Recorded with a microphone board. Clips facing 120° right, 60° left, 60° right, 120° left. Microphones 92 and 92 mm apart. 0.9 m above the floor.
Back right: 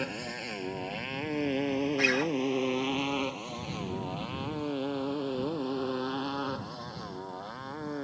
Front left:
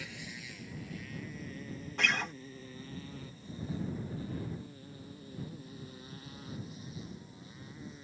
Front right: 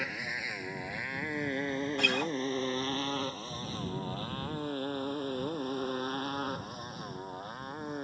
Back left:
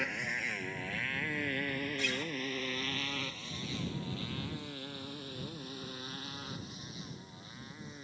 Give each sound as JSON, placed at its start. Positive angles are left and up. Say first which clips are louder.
{"t": 0.0, "sound": "a motorcycle", "louder": "back right 11 dB, even", "azimuth_deg": -150}
{"t": 2.0, "sound": "a guitar", "louder": "back right 7 dB, front right 6 dB", "azimuth_deg": -35}